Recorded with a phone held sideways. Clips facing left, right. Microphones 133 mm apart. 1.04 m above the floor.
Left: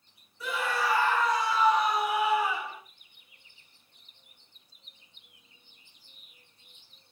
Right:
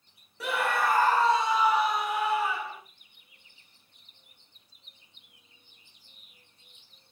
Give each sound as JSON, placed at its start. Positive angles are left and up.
{"t": 0.4, "sound": "a scream", "side_deg": -70, "distance_m": 0.7}